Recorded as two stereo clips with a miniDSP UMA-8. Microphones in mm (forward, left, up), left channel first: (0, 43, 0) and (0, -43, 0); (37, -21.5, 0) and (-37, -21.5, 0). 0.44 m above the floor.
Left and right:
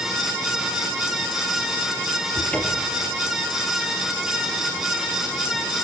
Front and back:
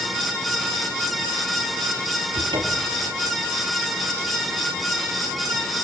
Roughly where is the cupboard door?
Behind.